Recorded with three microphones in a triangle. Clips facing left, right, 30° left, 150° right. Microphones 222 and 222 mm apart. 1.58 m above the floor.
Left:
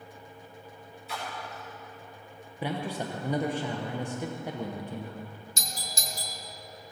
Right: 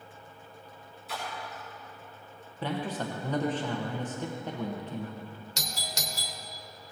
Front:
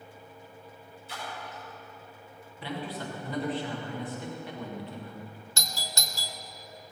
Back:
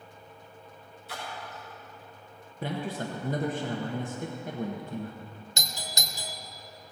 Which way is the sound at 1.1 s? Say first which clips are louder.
Even, back 1 dB; straight behind.